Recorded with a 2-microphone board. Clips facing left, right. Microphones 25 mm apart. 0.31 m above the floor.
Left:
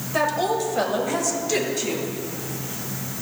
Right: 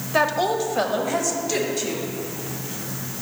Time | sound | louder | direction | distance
0.1 | a woman speaking | right 2 dB | 20° right (ahead or behind) | 0.9 m